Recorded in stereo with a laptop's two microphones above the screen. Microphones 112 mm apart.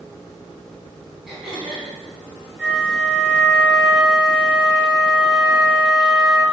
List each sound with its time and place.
1.3 s throat clearing: centre (ahead or behind), 4 m
2.6 s a flute: 5° right (ahead or behind), 4.5 m